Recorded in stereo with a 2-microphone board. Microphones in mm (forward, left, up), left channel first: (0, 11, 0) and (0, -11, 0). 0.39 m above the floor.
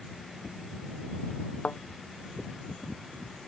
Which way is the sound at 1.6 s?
75° left (ahead or behind).